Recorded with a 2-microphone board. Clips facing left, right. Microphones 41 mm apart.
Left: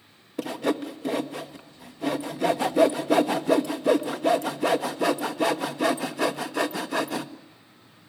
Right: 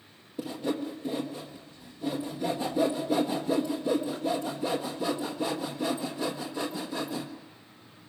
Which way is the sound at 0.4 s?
90° left.